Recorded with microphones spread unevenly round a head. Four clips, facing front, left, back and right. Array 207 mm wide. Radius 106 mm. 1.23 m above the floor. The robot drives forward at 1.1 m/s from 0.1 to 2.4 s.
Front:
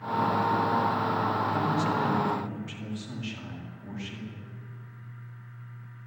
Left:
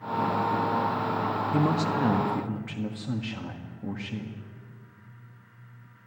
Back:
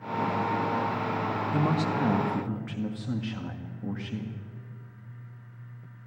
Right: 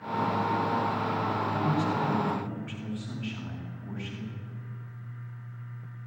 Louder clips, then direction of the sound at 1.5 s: Left 5 dB, even; 105° left.